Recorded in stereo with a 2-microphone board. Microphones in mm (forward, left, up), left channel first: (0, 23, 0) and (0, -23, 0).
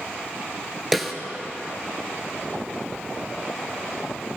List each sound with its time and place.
0.9 s a snare drum: 5° left (ahead or behind), 0.6 m